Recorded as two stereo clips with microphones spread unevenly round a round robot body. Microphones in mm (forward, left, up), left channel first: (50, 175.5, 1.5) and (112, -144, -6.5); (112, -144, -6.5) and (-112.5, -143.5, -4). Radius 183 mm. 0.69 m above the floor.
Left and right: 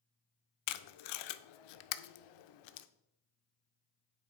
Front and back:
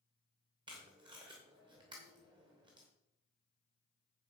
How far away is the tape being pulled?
About 0.6 m.